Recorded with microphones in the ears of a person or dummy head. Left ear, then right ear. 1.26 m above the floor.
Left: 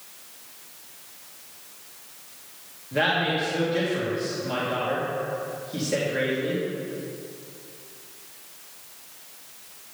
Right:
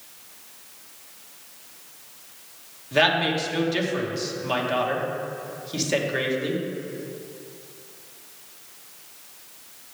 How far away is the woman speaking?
About 1.4 m.